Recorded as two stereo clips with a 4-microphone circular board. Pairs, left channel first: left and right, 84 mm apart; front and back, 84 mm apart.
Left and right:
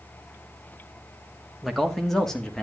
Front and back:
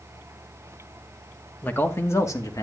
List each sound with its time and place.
1.6 s a man speaking: 5° right, 1.2 m; by 2.6 s 10° left, 1.5 m